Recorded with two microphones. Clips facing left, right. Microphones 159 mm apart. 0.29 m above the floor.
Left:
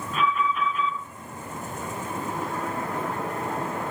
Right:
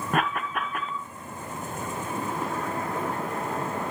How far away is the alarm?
About 2 m.